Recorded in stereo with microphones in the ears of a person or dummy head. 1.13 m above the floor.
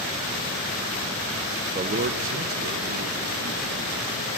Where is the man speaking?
20° right (ahead or behind), 0.7 m; by 4.3 s 75° right (ahead or behind), 3 m.